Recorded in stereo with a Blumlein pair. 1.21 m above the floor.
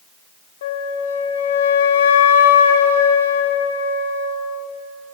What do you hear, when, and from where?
0.6 s a flute: 60° left, 0.7 m